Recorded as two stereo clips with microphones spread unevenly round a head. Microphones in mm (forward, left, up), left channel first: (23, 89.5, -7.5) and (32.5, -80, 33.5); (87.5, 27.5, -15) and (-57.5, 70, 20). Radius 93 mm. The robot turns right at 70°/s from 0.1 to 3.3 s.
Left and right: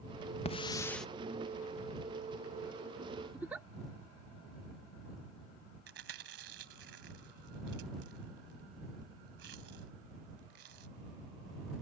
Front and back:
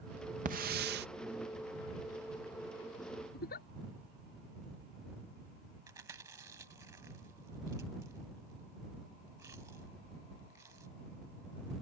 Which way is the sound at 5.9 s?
120° right.